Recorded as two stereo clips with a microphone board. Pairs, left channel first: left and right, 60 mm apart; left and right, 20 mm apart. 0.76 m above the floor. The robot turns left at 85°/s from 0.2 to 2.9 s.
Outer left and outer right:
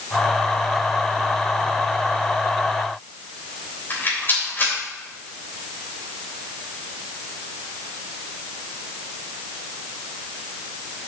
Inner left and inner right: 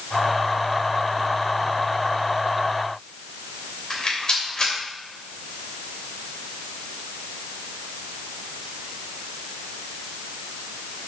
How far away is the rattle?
About 3 m.